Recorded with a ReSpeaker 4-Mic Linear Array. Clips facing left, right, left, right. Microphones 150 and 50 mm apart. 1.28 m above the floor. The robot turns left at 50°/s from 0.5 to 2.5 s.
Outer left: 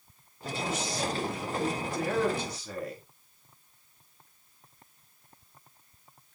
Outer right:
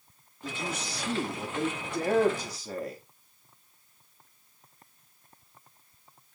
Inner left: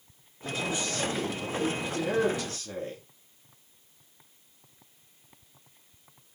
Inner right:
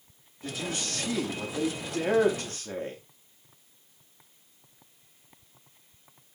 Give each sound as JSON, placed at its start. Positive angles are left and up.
{"t": 0.4, "sound": "a man speaking", "azimuth_deg": -45, "distance_m": 3.0}